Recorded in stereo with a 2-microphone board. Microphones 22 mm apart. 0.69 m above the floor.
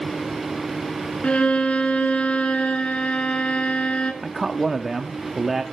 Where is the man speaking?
10° right (ahead or behind), 0.8 m.